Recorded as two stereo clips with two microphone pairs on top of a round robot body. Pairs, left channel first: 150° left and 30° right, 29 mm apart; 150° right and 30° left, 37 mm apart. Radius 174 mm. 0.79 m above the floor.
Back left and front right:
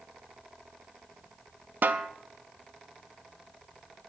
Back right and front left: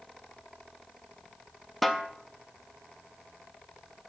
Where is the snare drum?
60° right, 0.6 m.